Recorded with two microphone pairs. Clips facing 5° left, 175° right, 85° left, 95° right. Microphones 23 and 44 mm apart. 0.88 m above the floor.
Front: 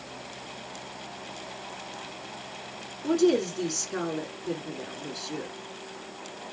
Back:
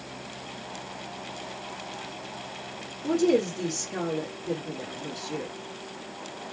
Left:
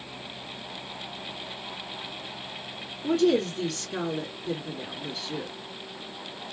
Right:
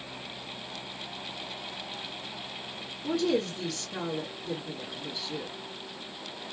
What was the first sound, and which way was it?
A woman speaking, 50° left.